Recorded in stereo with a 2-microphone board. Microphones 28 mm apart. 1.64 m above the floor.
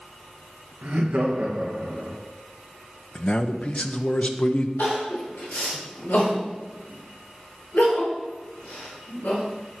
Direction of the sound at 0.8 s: 60° right (ahead or behind).